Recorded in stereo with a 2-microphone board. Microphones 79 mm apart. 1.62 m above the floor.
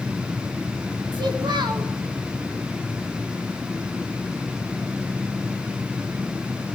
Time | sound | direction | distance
1.1 | a child speaking | 75° right (ahead or behind) | 3.5 m